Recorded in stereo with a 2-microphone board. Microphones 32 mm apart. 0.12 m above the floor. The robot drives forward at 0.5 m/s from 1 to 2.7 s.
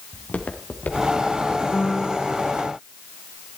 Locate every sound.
0.1 s footsteps: 50° left (ahead or behind), 2.5 m; by 1.6 s 90° left, 3.5 m
1.7 s a piano: 15° left (ahead or behind), 1.7 m